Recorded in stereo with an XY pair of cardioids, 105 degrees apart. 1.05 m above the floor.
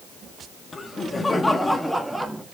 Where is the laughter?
30° left, 1.7 m; by 2.5 s 15° right, 1.4 m.